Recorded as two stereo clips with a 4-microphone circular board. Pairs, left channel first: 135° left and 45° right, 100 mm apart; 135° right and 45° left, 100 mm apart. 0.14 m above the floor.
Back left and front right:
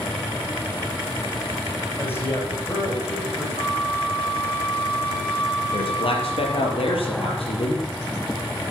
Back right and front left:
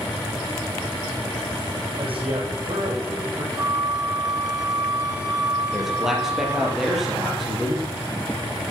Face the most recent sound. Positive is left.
turn(degrees=130)